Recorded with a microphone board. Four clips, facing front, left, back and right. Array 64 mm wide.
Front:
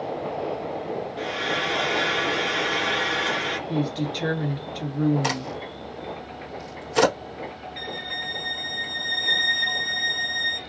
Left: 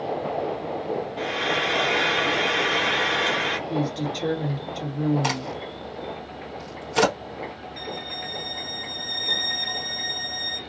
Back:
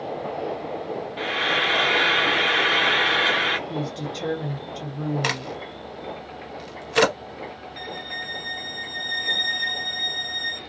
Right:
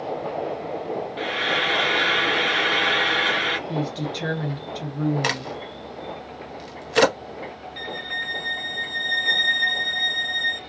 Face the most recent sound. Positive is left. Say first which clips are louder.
# right 6 dB, even
turn(degrees=-75)